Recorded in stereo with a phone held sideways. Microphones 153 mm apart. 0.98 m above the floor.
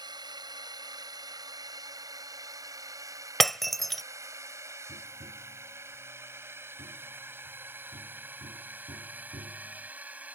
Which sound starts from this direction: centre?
Breaking glass, at 3.4 s.